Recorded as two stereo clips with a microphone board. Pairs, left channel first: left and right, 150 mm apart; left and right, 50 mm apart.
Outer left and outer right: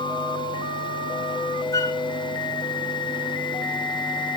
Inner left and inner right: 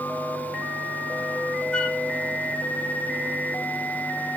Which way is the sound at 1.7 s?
20° left (ahead or behind).